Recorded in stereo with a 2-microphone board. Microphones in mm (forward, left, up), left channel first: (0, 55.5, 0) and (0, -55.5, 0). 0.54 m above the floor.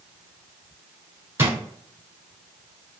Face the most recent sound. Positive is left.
turn(degrees=-25)  # may be behind; listen again after turning